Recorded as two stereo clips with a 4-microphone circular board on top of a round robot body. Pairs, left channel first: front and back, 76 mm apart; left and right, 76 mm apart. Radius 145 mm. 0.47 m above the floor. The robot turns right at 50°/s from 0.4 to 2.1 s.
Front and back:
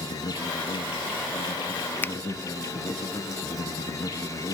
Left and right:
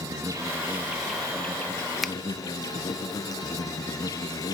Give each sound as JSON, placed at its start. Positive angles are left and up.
{"t": 0.0, "sound": "an insect", "azimuth_deg": -40, "distance_m": 2.0}
{"t": 2.0, "sound": "a finger snap", "azimuth_deg": 0, "distance_m": 0.5}